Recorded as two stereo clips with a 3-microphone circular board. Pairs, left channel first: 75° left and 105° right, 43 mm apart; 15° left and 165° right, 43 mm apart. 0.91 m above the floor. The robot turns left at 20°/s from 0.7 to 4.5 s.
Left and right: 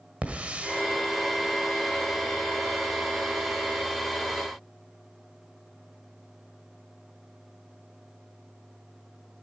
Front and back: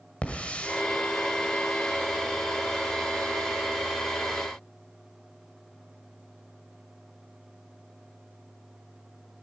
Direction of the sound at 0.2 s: 45° right.